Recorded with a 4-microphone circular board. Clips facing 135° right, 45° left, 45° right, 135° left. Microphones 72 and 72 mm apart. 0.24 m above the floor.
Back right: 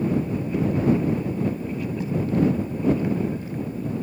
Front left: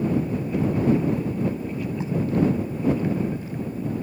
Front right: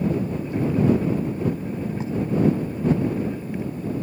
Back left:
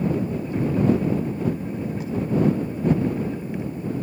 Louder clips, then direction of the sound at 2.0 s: Back right 1 dB, front right 2 dB; 5° right.